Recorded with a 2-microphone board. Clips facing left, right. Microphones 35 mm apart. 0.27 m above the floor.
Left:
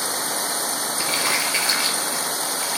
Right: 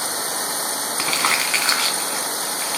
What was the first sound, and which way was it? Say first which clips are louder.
Crumpling: right 3 dB; 60° right (ahead or behind).